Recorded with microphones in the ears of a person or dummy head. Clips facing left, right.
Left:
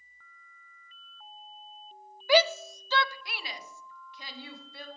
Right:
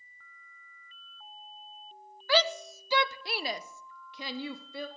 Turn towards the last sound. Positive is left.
turn(degrees=-70)  # may be behind; listen again after turning